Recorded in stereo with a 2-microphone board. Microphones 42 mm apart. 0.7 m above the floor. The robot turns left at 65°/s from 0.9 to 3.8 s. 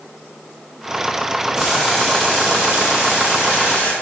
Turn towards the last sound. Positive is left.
turn(degrees=55)